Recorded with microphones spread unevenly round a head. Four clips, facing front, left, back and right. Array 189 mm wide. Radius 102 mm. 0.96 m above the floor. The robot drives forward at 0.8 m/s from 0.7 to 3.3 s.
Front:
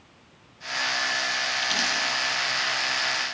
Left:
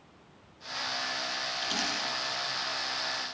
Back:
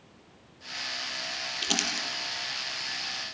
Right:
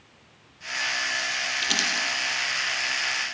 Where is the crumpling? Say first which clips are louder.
Right 4 dB, front 1 dB; 165° right, 6 m.